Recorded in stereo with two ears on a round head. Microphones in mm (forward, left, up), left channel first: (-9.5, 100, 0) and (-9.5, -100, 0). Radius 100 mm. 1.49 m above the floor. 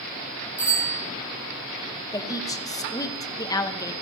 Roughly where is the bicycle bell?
Centre.